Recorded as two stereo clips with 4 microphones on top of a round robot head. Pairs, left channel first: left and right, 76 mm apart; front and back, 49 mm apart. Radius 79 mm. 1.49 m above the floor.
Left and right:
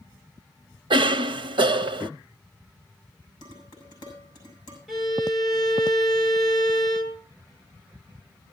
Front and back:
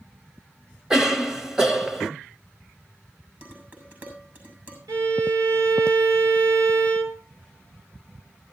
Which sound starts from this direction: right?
A cough, at 0.9 s.